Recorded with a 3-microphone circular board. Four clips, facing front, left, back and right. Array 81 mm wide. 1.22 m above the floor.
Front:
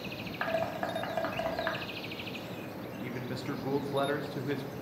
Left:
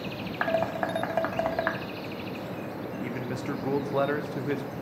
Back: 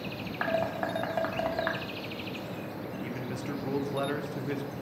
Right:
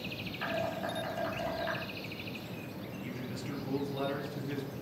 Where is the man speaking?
80° left, 0.8 m.